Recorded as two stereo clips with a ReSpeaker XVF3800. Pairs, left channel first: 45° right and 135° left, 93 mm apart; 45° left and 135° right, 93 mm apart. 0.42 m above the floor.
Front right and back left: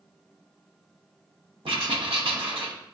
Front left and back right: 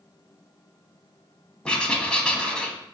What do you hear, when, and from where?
1.6 s writing: 125° left, 0.7 m